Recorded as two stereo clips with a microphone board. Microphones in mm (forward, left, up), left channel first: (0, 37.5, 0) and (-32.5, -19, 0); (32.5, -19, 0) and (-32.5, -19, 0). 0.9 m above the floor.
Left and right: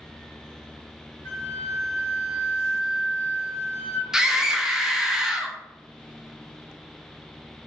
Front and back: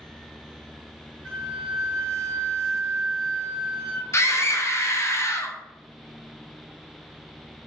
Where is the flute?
80° right, 2.0 m.